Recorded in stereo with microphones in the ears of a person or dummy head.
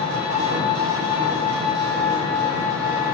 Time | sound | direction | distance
0.0 | an engine running | 40° right (ahead or behind) | 1.2 m